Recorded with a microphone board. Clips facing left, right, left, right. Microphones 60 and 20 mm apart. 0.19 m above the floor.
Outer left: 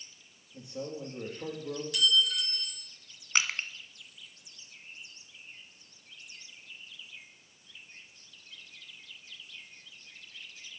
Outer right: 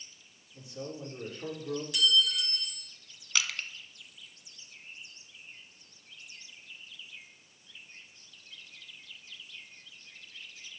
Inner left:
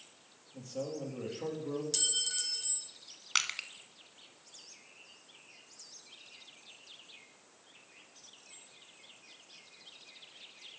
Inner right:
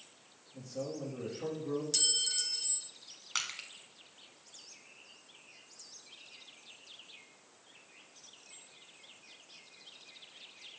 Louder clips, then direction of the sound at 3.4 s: Outer left 3 dB, inner left 5 dB; 35° left (ahead or behind).